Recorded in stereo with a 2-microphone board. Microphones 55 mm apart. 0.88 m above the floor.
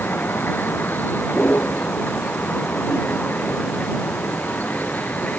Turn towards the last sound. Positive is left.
turn(degrees=30)  # may be behind; listen again after turning